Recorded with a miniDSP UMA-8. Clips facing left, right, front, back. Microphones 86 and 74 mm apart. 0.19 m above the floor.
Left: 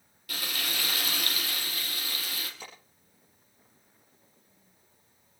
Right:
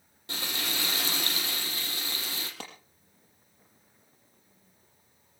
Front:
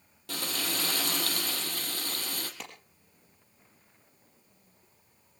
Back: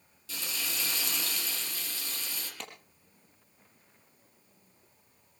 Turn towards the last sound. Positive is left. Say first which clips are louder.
# right 3 dB, even
turn(degrees=-85)